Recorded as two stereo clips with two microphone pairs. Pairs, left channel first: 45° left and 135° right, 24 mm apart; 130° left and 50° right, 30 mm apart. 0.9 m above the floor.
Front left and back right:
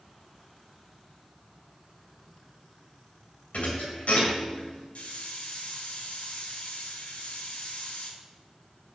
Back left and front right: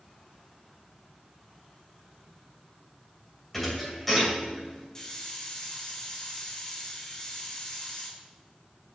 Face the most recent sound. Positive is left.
turn(degrees=60)